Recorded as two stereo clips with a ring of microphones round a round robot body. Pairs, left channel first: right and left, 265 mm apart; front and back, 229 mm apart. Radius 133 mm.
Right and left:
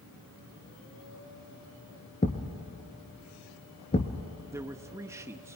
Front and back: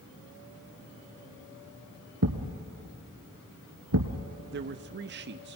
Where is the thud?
155° right, 1.6 m.